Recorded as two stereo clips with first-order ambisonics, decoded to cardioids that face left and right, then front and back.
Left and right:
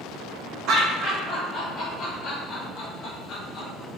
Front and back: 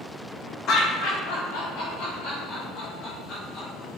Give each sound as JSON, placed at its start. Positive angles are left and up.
{"t": 0.7, "sound": "laughter", "azimuth_deg": -50, "distance_m": 0.7}